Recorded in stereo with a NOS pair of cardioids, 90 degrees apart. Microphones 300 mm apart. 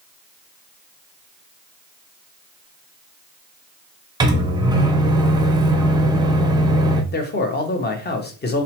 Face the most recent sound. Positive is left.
turn(degrees=30)